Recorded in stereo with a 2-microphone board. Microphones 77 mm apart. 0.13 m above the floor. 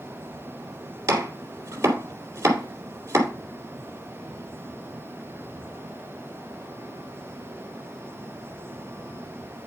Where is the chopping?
35° right (ahead or behind), 3 m.